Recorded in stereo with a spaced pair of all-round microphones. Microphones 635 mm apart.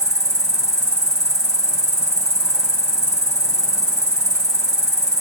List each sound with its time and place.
0.0 s an insect: 5° left (ahead or behind), 1.7 m